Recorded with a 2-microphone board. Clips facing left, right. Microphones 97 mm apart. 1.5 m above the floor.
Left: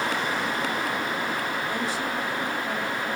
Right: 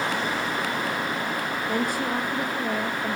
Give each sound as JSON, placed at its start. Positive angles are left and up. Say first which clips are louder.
{"t": 1.7, "sound": "a woman speaking", "louder": "right 3 dB", "side_deg": -50, "distance_m": 3.0}